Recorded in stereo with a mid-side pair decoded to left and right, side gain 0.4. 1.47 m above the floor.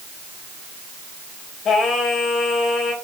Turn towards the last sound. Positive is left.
turn(degrees=65)